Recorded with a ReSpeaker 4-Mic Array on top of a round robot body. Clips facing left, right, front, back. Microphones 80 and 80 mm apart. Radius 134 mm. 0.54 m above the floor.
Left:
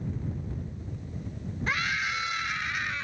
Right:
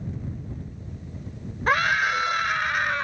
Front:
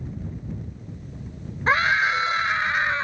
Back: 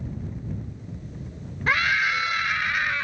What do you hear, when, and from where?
1.7 s a scream: 60° right